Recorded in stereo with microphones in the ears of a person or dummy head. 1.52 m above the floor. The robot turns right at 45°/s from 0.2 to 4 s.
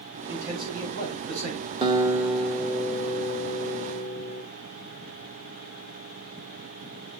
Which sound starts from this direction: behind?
A man speaking, at 0.3 s.